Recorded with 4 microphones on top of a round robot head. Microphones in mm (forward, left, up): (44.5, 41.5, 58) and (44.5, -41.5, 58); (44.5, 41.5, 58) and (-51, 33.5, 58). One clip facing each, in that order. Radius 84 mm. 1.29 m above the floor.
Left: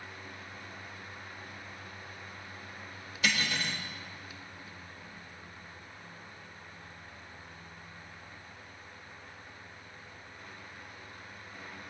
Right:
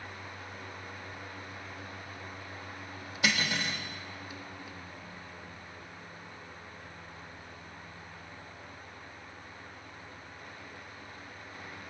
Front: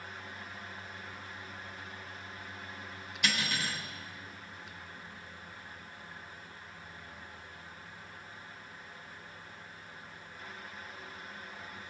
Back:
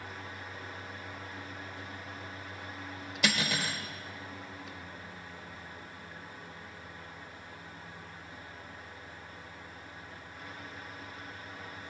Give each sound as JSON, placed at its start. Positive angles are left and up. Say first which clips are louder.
{"t": 3.2, "sound": "cutlery clinking", "louder": "right 1 dB, back 3 dB", "azimuth_deg": -160, "distance_m": 0.8}